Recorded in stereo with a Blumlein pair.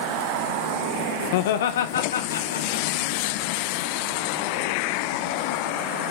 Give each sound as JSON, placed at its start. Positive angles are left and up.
{"t": 1.3, "sound": "laughter", "azimuth_deg": 50, "distance_m": 0.6}